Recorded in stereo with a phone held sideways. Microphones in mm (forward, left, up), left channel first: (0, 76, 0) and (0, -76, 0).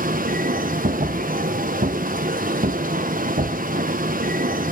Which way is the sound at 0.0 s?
65° right (ahead or behind).